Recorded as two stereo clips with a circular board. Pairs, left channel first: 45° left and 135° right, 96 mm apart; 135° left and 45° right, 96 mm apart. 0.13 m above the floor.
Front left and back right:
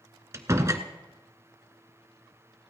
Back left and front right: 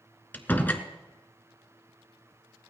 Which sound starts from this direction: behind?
A door slam, at 0.3 s.